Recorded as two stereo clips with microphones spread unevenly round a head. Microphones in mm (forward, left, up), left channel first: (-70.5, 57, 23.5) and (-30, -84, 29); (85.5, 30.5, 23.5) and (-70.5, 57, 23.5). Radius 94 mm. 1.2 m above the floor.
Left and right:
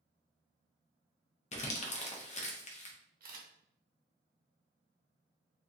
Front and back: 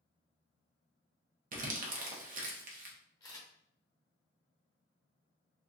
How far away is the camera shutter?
About 0.8 m.